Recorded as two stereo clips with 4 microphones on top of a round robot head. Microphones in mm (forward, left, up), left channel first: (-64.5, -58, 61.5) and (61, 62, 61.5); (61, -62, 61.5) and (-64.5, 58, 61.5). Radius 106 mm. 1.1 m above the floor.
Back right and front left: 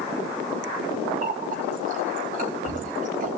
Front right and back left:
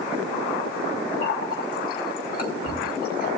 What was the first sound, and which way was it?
A running tap, 5° right.